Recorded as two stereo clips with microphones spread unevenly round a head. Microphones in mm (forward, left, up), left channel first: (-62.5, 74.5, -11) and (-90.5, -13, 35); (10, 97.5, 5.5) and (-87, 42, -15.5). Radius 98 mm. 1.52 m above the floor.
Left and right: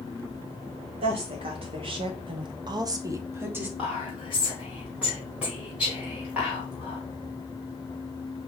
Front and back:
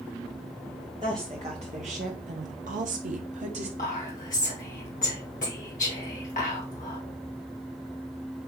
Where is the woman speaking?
80° right, 1.2 m; by 3.7 s 170° right, 0.9 m.